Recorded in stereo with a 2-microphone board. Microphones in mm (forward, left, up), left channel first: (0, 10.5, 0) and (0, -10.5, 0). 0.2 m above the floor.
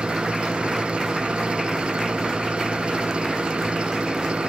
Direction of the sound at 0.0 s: 60° right (ahead or behind).